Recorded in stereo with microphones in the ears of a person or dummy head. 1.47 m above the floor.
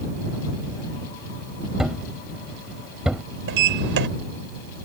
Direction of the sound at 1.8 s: Centre (ahead or behind).